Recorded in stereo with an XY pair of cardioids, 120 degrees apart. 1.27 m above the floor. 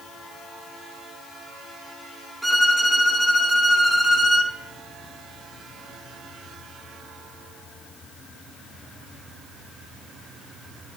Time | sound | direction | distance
2.4 | a violin | 5° right | 1.9 m